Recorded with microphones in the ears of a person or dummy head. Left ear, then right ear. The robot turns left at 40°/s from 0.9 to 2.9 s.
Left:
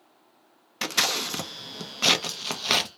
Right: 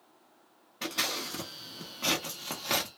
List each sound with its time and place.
0.8 s scissors: 65° left (ahead or behind), 0.6 m; by 2.9 s 30° left (ahead or behind), 0.6 m